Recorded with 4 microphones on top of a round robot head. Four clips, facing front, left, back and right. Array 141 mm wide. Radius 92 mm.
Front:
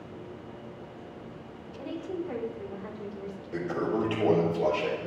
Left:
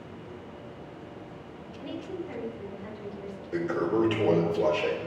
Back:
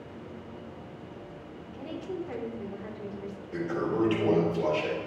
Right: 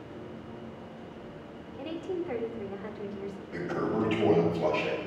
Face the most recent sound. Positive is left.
turn(degrees=95)